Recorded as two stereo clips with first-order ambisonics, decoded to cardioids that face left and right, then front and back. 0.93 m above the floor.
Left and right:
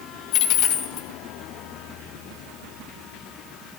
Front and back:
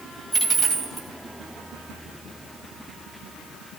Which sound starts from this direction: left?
A dropped coin, at 0.3 s.